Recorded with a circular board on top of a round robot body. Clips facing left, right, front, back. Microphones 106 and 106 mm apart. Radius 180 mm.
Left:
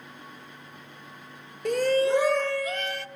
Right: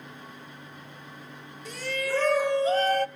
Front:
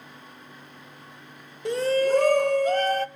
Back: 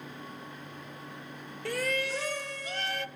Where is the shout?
70° left, 0.7 m; by 3.1 s 50° right, 0.9 m.